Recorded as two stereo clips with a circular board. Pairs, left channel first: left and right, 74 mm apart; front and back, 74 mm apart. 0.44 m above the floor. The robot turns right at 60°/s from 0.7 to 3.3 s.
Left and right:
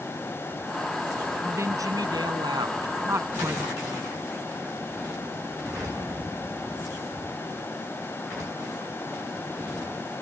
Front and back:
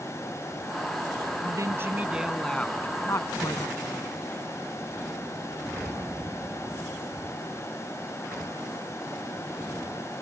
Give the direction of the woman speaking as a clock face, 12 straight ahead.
5 o'clock.